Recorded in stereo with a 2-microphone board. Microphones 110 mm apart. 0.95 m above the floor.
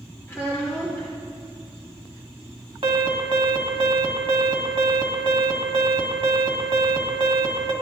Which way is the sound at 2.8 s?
55° right (ahead or behind).